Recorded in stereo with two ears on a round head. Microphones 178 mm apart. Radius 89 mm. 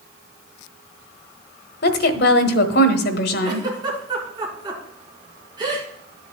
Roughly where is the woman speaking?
Left.